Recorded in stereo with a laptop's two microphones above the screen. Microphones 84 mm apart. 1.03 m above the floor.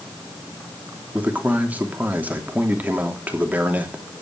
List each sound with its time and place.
1.1 s a man speaking: 15° right (ahead or behind), 3 m